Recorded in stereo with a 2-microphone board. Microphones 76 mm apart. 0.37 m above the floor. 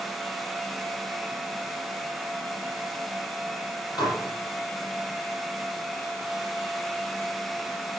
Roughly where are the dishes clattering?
Left.